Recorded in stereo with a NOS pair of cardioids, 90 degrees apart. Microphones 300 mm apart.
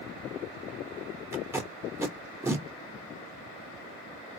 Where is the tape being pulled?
10° right, 1.3 m.